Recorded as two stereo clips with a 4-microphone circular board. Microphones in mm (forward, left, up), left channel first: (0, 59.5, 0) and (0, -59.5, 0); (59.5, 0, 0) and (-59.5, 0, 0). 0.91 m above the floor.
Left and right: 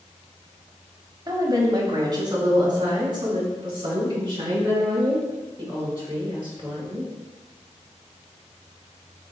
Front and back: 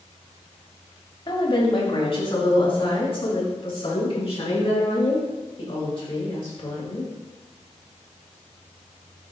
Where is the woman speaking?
35° right, 2 m; by 7.1 s 40° right, 10 m.